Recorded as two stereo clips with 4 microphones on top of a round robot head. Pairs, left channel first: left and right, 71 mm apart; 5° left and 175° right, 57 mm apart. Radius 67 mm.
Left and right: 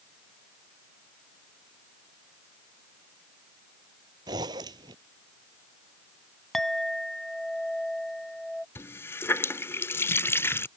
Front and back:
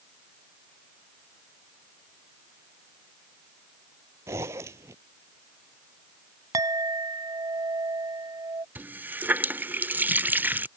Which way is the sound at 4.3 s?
125° right.